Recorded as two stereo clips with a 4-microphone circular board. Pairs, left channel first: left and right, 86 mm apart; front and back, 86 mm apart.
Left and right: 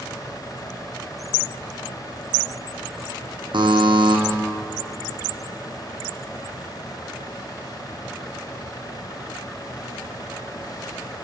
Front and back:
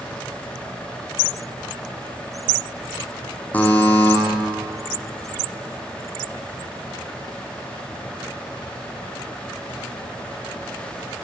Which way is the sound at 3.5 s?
70° right.